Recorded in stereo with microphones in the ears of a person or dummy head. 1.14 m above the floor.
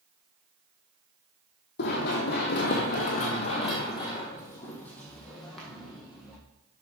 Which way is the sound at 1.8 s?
65° left (ahead or behind).